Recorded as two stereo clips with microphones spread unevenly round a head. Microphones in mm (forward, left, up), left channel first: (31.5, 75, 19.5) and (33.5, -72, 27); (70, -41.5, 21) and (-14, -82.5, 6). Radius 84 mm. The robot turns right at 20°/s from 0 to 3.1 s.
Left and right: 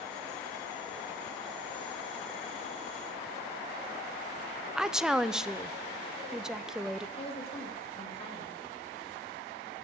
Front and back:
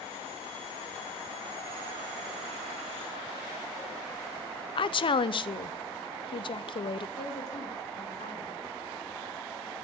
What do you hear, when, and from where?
4.8 s a woman speaking: 5° right, 0.5 m
7.2 s a woman speaking: 40° left, 3 m